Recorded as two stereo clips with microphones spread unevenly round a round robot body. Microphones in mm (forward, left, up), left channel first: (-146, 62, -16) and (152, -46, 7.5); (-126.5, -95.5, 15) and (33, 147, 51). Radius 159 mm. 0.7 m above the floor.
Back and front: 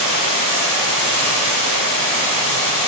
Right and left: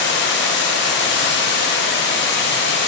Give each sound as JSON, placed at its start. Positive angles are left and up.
{"t": 0.0, "sound": "running water", "azimuth_deg": -170, "distance_m": 1.8}